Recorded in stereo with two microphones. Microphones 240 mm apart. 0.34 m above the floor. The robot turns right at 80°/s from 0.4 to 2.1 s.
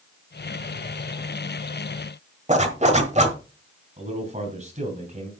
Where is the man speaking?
35° right (ahead or behind), 3 m.